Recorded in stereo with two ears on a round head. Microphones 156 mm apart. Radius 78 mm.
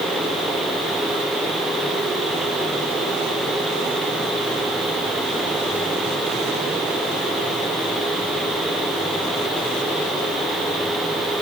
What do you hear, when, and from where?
Only background noise.